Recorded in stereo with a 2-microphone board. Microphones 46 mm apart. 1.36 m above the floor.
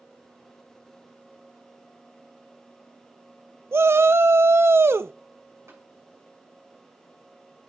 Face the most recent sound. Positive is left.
turn(degrees=-80)